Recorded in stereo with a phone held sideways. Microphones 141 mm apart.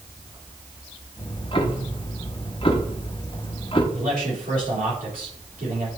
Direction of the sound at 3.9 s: 85° right.